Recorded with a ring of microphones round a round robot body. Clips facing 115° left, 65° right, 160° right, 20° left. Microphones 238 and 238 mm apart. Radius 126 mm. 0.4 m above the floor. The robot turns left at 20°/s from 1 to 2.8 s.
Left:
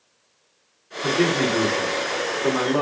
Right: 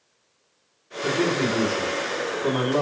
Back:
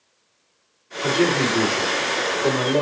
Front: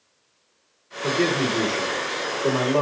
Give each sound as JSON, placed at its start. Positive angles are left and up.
{"t": 1.0, "sound": "a man speaking", "azimuth_deg": 150, "distance_m": 1.5}